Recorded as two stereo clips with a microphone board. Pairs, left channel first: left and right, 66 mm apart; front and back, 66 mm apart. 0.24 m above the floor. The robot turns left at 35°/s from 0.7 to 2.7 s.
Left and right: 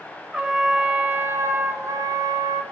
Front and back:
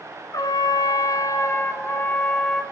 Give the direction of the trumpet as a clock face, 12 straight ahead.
12 o'clock.